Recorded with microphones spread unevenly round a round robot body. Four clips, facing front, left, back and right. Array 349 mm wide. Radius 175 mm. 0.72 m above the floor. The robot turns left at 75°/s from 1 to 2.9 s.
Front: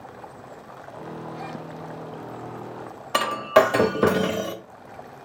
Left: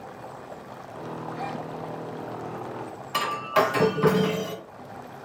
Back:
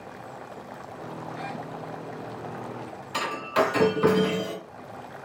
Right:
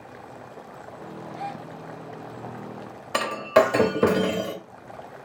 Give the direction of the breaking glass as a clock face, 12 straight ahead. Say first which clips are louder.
Right 4 dB, front 7 dB; 1 o'clock.